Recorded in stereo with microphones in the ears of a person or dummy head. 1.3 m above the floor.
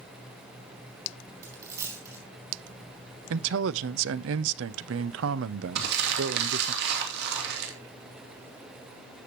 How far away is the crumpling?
About 2.5 m.